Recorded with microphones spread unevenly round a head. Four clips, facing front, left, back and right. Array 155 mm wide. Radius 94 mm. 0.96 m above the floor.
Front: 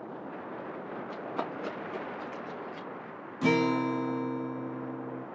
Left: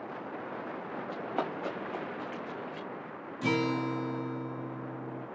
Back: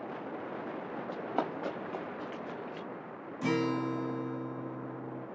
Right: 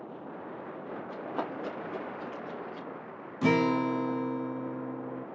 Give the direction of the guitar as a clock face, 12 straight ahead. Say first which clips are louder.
Right 4 dB, front 5 dB; 2 o'clock.